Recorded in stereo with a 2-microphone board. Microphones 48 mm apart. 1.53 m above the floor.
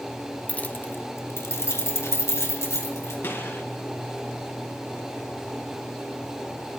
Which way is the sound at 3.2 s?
55° left (ahead or behind).